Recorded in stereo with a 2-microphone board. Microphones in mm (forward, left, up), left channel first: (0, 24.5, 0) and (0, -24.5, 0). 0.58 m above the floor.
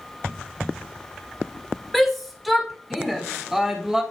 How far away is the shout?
About 2.5 m.